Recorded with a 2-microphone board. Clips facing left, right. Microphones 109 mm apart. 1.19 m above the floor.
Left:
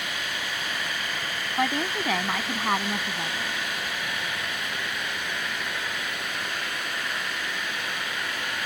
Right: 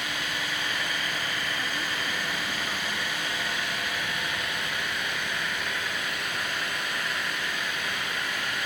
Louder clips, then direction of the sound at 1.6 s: Left 6 dB; 80° left.